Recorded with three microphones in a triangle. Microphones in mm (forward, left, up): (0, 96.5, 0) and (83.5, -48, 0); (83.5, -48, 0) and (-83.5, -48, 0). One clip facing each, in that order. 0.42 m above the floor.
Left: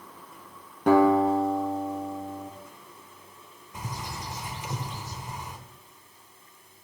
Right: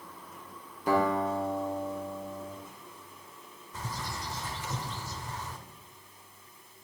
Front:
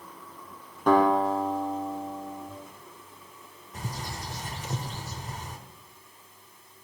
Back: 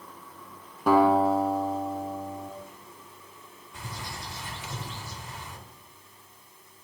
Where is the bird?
45° left, 3 m.